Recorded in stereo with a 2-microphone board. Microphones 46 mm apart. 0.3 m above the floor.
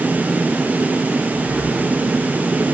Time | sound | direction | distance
1.3 | breathing | 20° right (ahead or behind) | 3.5 m